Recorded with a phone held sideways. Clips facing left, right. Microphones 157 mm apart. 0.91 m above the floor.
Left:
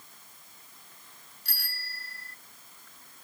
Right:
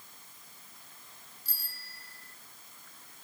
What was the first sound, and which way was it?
A bicycle bell, 80° left.